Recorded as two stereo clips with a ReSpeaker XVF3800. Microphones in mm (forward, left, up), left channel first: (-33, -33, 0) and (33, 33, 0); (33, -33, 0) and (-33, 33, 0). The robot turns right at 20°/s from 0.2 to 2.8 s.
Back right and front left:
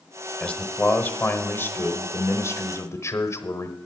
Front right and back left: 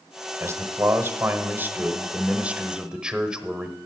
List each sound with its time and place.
0.4 s a man speaking: 160° left, 1.1 m; by 3.8 s 155° right, 1.1 m